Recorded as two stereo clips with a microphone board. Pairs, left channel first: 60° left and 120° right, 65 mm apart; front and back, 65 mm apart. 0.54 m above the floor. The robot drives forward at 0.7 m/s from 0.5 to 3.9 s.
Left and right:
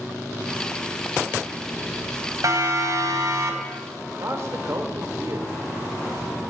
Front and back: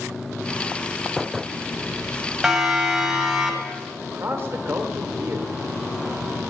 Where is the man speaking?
140° right, 2.0 m.